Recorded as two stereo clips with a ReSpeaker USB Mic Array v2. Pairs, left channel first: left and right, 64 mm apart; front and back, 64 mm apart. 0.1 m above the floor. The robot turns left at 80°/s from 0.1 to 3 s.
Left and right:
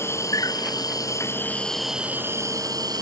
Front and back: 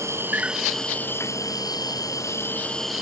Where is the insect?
135° left; by 3.0 s 95° right.